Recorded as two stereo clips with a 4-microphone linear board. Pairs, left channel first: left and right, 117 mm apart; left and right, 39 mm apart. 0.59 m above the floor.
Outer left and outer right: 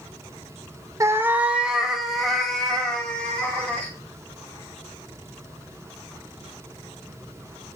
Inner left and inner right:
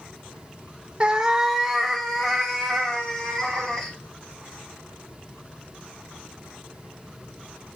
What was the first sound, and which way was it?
A cat meowing, 25° right (ahead or behind).